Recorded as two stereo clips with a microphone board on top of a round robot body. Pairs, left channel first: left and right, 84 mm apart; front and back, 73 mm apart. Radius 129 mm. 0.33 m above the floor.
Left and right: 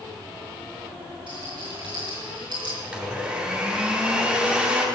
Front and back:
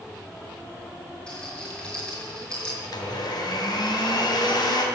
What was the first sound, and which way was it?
A rattle, 75° right.